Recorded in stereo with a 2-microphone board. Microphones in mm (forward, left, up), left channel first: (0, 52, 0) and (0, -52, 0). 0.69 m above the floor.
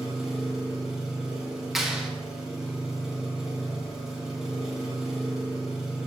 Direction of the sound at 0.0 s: 5° right (ahead or behind).